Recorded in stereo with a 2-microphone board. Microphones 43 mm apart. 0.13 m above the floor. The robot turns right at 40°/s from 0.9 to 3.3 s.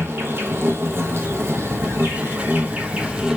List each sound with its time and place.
0.0 s an insect: 115° right, 1.1 m; by 3.4 s 20° right, 1.1 m